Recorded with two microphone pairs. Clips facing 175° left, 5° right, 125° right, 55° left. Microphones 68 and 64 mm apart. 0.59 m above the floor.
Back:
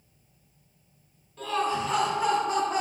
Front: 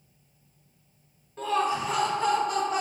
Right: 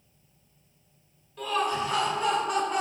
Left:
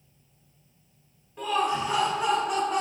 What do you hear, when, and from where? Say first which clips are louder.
1.4 s laughter: front 1 dB, left 2 dB; 5° left, 0.7 m; by 2.8 s 145° left, 0.9 m